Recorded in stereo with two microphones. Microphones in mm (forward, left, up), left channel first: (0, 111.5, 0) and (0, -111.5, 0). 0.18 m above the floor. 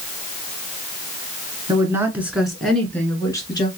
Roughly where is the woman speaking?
Centre.